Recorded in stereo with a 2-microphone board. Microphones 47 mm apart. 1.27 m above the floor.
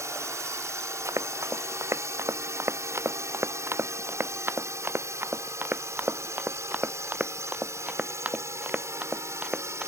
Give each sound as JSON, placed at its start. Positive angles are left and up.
{"t": 0.0, "sound": "a drone", "side_deg": -70}
{"t": 1.1, "sound": "running footsteps", "side_deg": -70}